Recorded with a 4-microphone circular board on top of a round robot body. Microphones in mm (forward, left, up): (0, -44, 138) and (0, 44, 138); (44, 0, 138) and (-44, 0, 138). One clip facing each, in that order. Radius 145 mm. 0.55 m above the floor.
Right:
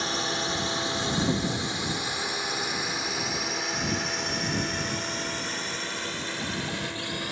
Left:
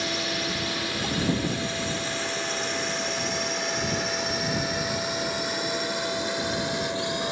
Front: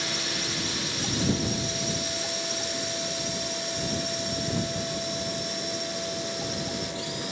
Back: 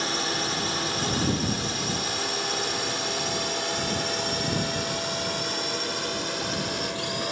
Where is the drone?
140° right; by 7.3 s 155° left.